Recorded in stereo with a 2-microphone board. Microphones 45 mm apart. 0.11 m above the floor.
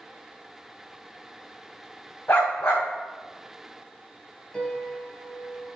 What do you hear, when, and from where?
2.3 s a dog barking: 55° left (ahead or behind), 2.5 m
4.5 s a piano: 15° left (ahead or behind), 1.9 m